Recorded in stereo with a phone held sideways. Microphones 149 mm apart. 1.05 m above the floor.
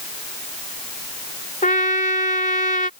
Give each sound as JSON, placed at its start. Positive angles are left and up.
{"t": 1.6, "sound": "a trumpet", "side_deg": 65}